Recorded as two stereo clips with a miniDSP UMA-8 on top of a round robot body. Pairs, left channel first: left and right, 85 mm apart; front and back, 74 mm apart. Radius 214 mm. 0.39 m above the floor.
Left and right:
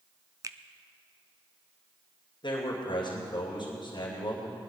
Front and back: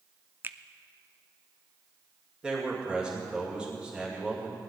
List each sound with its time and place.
0.4 s a finger snap: 125° right, 0.8 m
2.4 s a man speaking: 100° left, 2.5 m